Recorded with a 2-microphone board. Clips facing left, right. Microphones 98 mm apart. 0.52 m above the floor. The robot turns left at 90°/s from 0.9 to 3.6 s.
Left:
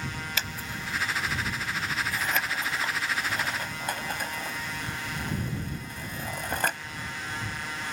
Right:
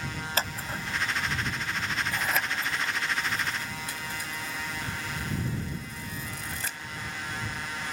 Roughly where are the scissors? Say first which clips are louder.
Right 3 dB; right.